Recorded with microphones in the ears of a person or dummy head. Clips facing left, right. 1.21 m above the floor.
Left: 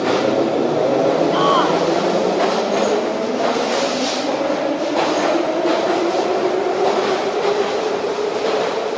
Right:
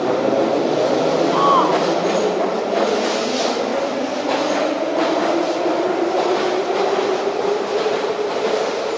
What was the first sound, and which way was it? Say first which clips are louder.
A shout: even; 10° left (ahead or behind).